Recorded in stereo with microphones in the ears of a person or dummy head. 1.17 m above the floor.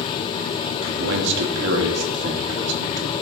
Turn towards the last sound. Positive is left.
turn(degrees=-65)  # may be behind; listen again after turning